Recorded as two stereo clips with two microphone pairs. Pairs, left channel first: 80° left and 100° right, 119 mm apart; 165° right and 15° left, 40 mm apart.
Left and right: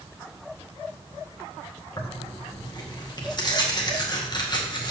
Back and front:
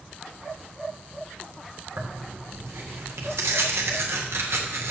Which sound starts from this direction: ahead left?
Tearing paper, at 2.0 s.